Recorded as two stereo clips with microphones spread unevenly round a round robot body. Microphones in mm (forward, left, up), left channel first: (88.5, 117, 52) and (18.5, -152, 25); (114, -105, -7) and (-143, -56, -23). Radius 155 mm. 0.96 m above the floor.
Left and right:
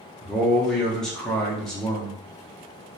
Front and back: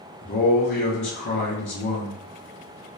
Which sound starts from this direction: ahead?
A man speaking, at 0.2 s.